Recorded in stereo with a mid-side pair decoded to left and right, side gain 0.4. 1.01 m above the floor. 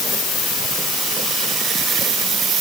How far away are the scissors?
No scissors in this recording.